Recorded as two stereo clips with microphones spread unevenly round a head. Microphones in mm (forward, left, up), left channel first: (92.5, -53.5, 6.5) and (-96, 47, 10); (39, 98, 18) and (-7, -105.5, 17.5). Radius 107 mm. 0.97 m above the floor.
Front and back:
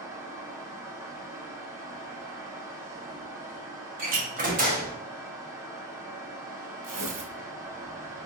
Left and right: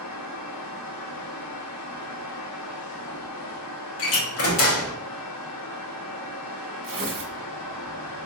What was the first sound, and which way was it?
A fan, 75° left.